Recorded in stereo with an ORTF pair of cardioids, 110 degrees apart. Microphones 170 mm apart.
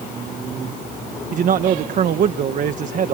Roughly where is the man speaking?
Ahead right.